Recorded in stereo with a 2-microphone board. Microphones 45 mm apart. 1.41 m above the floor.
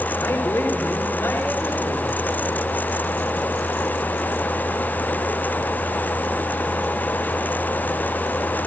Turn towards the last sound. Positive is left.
turn(degrees=85)